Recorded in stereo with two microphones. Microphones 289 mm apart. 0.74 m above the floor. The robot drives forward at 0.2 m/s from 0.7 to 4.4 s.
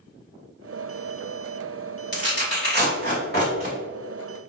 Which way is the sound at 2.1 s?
40° left (ahead or behind).